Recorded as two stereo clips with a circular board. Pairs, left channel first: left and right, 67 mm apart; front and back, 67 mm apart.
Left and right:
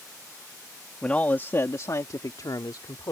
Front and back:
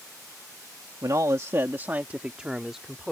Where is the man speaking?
165° left; by 3.1 s 90° left.